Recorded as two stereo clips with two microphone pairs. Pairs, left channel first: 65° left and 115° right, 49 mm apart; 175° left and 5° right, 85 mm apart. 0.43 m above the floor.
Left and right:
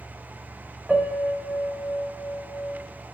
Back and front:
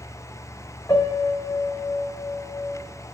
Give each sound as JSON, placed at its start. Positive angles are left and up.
{"t": 0.9, "sound": "a piano", "azimuth_deg": 140, "distance_m": 2.0}